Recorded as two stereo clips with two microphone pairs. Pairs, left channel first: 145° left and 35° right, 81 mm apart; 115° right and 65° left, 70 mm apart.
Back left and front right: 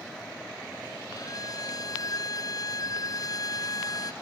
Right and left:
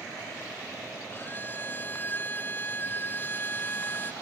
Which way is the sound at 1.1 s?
175° right.